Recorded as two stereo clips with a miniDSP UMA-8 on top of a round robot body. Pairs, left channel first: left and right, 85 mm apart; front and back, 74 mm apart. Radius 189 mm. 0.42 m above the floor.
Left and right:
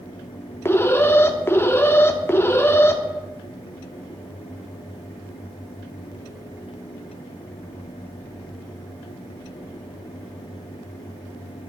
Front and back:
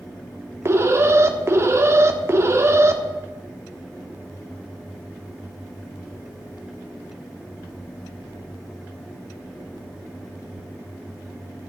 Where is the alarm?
145° left, 1.5 m.